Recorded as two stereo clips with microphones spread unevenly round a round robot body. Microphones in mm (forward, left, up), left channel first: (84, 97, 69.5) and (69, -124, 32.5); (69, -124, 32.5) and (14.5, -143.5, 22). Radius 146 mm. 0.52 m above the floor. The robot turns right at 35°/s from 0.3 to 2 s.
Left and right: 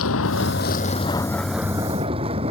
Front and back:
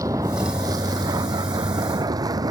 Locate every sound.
0.0 s a vehicle: 130° left; by 2.5 s 165° right